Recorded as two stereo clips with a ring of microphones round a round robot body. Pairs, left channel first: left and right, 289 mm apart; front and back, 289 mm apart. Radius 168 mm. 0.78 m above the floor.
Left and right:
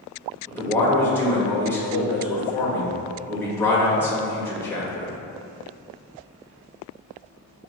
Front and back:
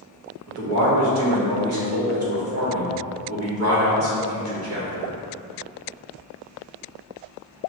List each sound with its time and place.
0.5 s a man speaking: 170° left, 1.2 m